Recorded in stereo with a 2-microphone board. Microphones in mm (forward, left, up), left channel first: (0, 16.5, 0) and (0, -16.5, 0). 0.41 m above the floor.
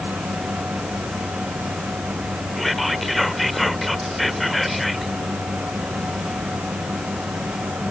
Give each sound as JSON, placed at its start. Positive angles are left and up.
{"t": 2.6, "sound": "whispering", "side_deg": 0}